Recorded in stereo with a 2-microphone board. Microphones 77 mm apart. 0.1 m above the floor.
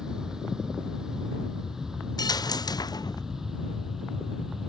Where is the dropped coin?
65° left (ahead or behind).